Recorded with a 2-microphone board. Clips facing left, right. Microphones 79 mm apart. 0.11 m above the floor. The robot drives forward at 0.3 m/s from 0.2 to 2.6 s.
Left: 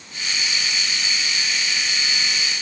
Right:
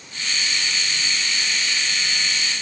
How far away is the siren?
I don't hear a siren.